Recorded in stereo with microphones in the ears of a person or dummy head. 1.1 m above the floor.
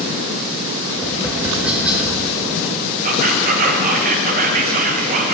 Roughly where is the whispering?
Right.